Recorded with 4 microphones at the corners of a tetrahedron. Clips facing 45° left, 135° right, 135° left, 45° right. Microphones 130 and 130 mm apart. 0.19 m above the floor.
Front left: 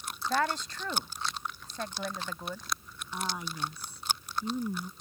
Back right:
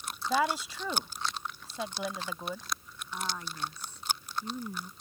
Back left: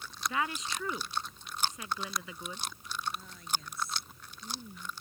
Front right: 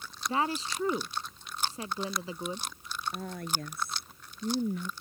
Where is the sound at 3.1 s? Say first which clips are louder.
Front left 2 dB, front right 4 dB; 30° right.